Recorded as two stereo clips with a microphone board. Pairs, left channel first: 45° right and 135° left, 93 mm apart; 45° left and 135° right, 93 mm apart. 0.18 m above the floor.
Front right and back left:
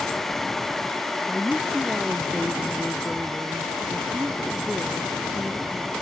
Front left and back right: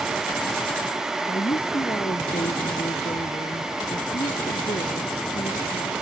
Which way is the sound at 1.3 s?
40° left.